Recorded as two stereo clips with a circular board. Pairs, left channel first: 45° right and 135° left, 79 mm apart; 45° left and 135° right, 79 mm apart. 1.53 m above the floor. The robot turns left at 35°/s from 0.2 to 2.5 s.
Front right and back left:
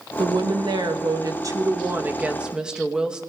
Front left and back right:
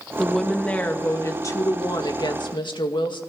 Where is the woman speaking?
135° left, 2 m; by 3.2 s 55° left, 2 m.